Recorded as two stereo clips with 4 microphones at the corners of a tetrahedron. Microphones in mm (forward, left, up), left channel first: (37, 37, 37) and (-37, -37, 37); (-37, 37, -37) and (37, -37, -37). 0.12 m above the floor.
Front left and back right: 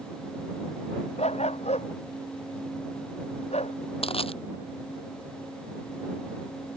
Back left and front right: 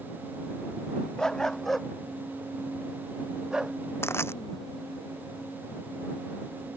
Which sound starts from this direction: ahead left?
A dog barking, at 1.2 s.